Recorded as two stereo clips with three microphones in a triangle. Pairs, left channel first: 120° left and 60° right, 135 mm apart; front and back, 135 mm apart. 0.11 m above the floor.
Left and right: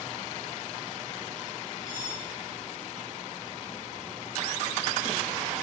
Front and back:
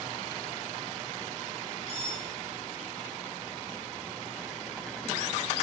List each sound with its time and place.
1.9 s cutlery clinking: 130° left, 7 m